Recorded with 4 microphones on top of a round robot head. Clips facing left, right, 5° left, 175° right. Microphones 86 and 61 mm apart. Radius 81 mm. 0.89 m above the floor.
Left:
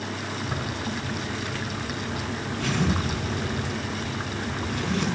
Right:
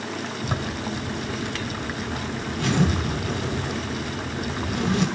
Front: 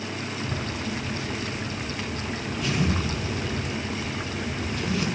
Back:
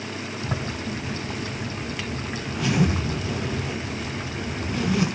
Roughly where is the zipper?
Behind right.